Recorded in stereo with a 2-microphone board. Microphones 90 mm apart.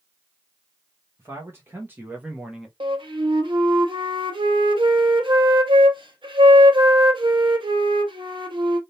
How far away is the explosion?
No explosion in this recording.